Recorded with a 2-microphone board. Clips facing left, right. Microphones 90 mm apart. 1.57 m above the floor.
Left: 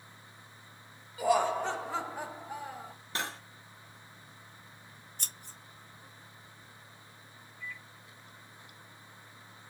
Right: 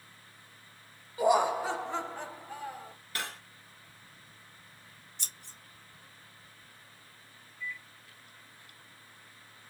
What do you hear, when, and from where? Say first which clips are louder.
1.2 s laughter: right 2 dB; 25° right (ahead or behind), 0.8 m; by 2.9 s 20° left (ahead or behind), 1.5 m
3.1 s cutlery clinking: left 2 dB; 25° left (ahead or behind), 0.7 m
5.2 s scissors: left 2 dB; 45° left (ahead or behind), 1.0 m
7.6 s a microwave: right 4 dB; 55° left (ahead or behind), 0.6 m